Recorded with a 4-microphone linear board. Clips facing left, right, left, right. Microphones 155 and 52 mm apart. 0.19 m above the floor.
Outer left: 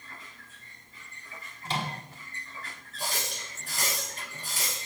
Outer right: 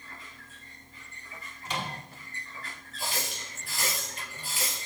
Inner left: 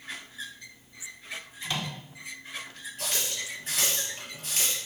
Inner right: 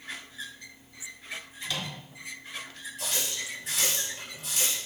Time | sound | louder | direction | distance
1.6 | a microwave | outer left 2 dB, inner left 2 dB | 30° left (ahead or behind) | 1.1 m
3.0 | a running tap | even, even | 45° left (ahead or behind) | 3 m